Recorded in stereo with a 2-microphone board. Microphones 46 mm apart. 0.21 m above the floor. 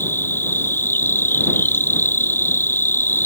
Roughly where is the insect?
Left.